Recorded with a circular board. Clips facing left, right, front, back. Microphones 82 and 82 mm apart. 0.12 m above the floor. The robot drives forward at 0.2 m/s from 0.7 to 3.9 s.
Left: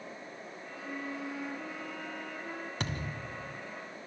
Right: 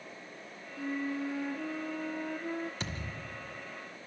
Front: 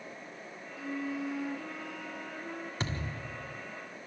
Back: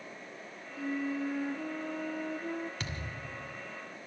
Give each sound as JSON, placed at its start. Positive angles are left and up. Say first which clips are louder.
{"t": 0.8, "sound": "a flute", "louder": "right 5 dB, back 2 dB", "azimuth_deg": -140, "distance_m": 2.5}
{"t": 2.8, "sound": "a thud", "louder": "left 3 dB, front 3 dB", "azimuth_deg": 60, "distance_m": 2.5}